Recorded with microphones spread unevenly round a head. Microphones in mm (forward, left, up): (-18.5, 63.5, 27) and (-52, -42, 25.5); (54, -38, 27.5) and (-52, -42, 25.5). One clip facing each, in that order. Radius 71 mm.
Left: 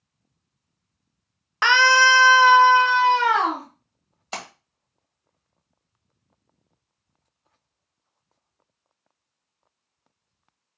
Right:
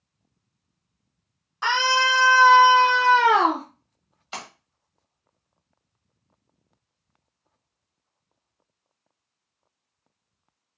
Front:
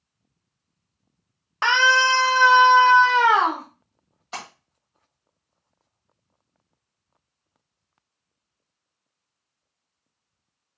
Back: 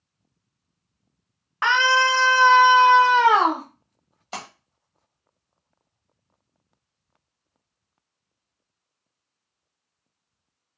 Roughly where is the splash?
Behind left.